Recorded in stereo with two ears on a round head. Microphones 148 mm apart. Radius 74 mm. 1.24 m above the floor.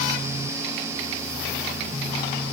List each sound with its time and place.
Only background noise.